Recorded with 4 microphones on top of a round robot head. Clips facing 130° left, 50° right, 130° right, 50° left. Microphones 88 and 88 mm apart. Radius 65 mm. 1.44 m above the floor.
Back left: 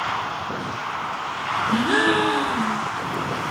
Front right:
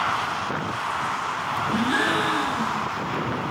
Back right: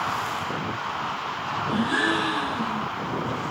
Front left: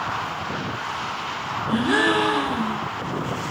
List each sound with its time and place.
1.7 s a gasp: 95° left, 6 m